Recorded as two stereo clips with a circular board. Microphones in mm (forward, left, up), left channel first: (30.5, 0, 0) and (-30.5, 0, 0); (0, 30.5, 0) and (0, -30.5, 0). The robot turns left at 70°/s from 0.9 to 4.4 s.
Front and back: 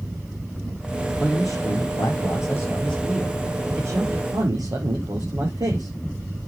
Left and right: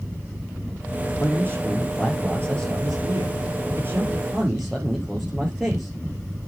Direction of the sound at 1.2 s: 45° left.